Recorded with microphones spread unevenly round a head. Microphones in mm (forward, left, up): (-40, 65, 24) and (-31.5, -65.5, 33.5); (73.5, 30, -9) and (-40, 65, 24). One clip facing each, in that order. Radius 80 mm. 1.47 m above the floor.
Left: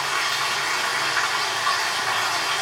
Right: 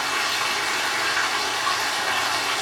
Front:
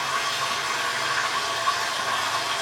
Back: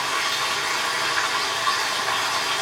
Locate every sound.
0.0 s running water: 150° right, 3 m